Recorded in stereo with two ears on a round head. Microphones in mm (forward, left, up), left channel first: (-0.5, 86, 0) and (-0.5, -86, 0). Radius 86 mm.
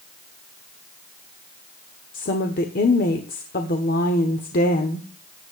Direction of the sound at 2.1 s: 50° left (ahead or behind).